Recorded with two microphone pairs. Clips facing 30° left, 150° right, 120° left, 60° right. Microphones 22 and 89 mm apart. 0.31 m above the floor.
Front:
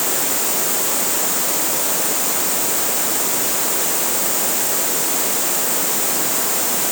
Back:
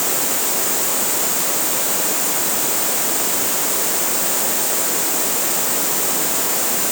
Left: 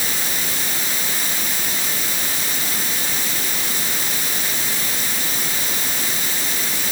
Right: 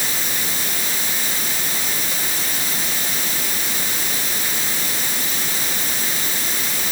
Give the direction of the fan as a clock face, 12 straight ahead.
I don't hear a fan.